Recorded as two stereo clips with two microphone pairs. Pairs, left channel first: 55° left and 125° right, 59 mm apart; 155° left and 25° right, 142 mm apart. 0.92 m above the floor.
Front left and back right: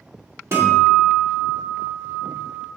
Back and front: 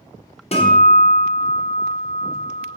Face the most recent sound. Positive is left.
turn(degrees=-165)